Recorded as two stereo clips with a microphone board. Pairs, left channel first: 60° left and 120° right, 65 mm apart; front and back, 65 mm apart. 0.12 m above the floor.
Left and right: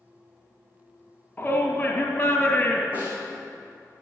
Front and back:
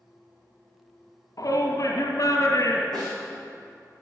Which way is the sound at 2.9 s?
170° left.